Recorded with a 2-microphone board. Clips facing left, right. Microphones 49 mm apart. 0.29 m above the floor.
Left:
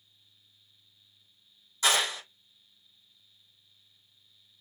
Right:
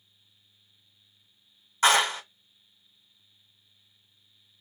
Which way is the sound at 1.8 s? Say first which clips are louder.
Right 5 dB; 50° right (ahead or behind).